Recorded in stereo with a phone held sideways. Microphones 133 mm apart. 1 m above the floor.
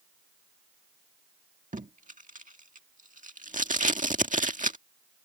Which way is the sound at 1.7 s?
75° right (ahead or behind).